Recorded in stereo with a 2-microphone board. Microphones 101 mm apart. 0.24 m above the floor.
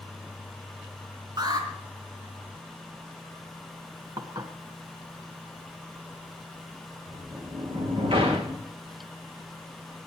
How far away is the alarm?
About 3.5 m.